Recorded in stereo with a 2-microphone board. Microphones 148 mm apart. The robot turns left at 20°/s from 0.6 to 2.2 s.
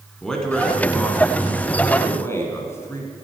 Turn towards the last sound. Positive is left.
turn(degrees=15)  # may be behind; listen again after turning